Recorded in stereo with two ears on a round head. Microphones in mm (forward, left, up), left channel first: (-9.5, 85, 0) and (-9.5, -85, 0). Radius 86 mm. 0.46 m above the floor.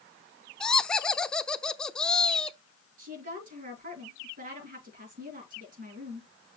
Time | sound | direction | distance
0.6 | laughter | 5° left (ahead or behind) | 0.7 m
3.0 | a woman speaking | 45° right (ahead or behind) | 6 m